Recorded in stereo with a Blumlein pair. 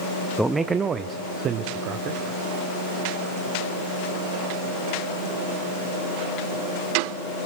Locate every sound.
0.4 s a man speaking: 5° right, 0.5 m; by 2.2 s 35° right, 1.5 m